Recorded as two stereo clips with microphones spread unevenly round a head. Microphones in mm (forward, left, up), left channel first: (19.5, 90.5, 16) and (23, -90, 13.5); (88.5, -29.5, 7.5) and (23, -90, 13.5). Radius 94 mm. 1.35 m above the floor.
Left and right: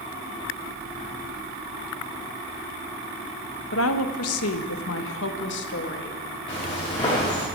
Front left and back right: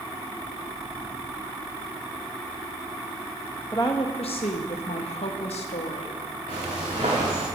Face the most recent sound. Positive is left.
turn(degrees=160)